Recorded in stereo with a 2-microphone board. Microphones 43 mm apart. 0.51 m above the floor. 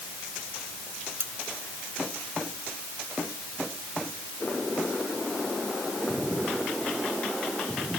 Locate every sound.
1.2 s cutlery clinking: 75° right (ahead or behind)